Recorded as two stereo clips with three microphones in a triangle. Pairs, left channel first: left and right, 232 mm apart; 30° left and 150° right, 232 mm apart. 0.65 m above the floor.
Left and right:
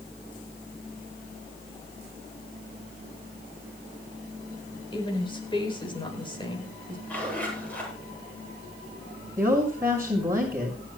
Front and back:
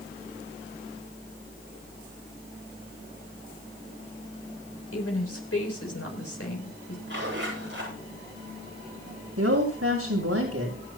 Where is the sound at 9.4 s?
170° right, 6 m.